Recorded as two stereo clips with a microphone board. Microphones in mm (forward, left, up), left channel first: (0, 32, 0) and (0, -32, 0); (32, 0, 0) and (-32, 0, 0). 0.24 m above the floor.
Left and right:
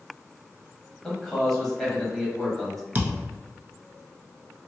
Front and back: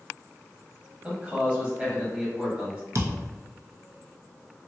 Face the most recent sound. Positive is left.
turn(degrees=-150)